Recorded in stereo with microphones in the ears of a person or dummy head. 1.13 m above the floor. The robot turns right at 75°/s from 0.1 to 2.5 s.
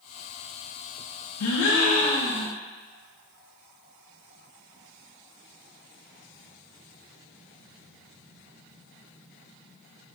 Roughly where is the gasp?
Left.